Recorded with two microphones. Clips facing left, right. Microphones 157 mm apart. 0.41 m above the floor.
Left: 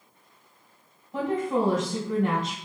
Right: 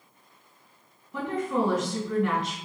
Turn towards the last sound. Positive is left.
turn(degrees=45)  # may be behind; listen again after turning